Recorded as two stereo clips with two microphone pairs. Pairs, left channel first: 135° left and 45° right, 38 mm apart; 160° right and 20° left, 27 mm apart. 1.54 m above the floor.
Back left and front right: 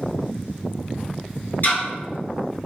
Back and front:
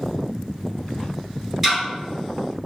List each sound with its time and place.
1.6 s ticking: 110° left, 1.6 m